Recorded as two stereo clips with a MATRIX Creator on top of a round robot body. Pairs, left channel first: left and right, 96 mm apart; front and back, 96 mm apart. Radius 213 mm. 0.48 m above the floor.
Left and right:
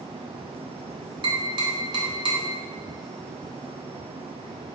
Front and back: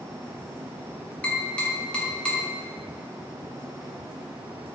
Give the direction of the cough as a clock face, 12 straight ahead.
I don't hear a cough.